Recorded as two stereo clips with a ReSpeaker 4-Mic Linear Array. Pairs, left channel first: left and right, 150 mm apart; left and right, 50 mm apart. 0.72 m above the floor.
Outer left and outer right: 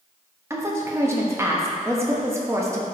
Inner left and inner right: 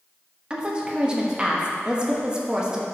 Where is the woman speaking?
20° right (ahead or behind), 1.1 m.